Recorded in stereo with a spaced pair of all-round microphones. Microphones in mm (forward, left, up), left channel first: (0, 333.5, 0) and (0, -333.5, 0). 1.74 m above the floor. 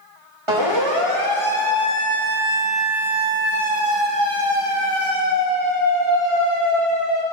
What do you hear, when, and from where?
0.5 s a siren: 50° right (ahead or behind), 3 m; by 7.2 s 25° left (ahead or behind), 5 m